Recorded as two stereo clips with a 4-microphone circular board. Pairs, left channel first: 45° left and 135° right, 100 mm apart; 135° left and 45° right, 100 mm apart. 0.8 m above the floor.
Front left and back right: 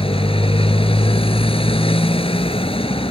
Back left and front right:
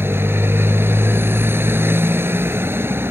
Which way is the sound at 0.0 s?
25° left.